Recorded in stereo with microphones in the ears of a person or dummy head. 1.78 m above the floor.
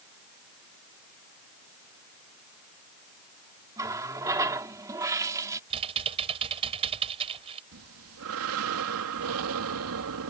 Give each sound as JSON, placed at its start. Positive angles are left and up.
{"t": 3.8, "sound": "a running tap", "side_deg": -15}
{"t": 5.7, "sound": "typing on a keyboard", "side_deg": -30}
{"t": 7.7, "sound": "breathing", "side_deg": -75}